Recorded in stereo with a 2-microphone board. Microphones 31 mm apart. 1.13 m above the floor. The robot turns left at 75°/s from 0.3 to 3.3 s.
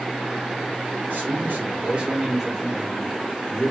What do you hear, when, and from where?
1.1 s a man speaking: 85° right, 2 m; by 3.7 s 110° left, 2 m